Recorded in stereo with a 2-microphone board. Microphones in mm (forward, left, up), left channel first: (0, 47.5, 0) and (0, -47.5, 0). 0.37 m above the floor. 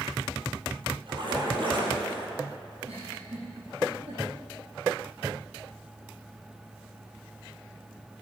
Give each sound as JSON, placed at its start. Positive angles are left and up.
{"t": 1.1, "sound": "a splash", "side_deg": -55, "distance_m": 4.5}
{"t": 2.8, "sound": "a giggle", "side_deg": -85, "distance_m": 5.5}